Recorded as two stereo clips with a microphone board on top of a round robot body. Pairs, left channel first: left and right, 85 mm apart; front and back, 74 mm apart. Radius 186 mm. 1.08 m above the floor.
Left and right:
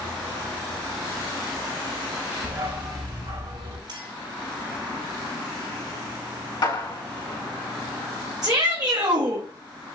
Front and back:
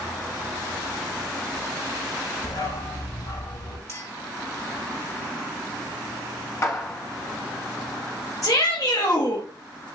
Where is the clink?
55° right, 5 m.